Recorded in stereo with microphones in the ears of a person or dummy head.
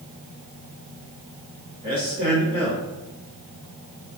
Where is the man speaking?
25° right (ahead or behind), 1.4 m.